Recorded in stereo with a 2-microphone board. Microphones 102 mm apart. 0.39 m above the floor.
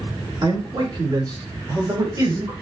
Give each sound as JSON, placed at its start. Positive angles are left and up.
{"t": 0.4, "sound": "a man speaking", "side_deg": -45, "distance_m": 4.5}